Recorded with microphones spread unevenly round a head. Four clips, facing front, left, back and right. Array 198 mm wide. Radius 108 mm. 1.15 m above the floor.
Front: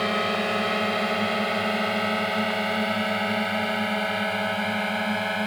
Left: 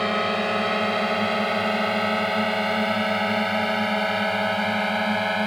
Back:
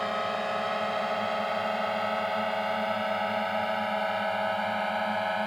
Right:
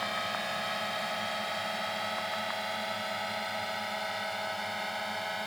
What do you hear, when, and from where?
0.0 s a drone: 55° left; by 5.5 s 65° left